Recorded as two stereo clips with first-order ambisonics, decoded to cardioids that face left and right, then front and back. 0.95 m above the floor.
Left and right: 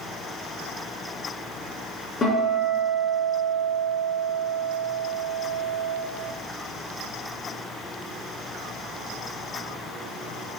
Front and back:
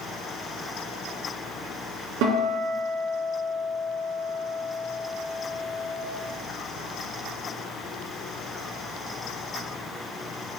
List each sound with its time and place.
2.2 s a guitar: 155° left, 3 m